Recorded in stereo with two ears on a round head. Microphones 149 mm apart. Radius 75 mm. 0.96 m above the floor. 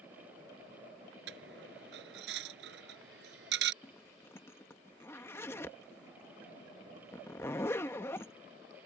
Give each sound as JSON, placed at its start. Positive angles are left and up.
{"t": 1.3, "sound": "a dropped coin", "side_deg": -75}
{"t": 3.8, "sound": "a zipper", "side_deg": 15}